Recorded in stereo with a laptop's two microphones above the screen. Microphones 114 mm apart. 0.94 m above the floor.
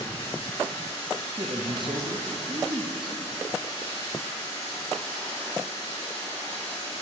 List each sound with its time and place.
0.0 s running water: 55° left (ahead or behind), 2.5 m
1.4 s a man speaking: 45° right (ahead or behind), 0.7 m